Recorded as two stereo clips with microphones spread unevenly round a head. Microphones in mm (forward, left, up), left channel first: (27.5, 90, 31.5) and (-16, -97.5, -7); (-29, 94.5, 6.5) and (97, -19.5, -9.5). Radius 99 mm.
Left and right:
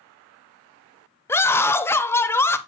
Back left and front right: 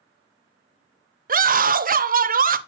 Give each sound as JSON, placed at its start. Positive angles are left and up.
{"t": 1.3, "sound": "a scream", "azimuth_deg": -5, "distance_m": 0.6}